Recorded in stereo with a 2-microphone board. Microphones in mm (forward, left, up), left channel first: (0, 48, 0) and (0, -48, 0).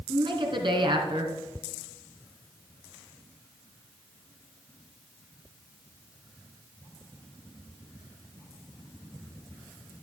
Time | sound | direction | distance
0.1 | a woman speaking | 60° right (ahead or behind) | 3 m